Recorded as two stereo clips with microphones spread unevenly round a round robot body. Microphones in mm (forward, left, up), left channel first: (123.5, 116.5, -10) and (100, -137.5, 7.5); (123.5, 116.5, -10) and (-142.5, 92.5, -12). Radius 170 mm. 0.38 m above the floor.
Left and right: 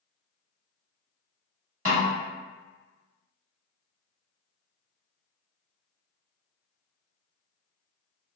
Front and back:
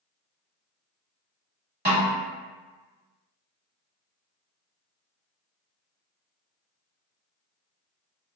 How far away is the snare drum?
About 1.3 m.